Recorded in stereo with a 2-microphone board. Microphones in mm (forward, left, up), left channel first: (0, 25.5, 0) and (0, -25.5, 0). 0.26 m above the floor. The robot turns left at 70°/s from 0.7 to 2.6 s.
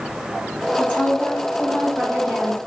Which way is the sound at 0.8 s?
30° left (ahead or behind).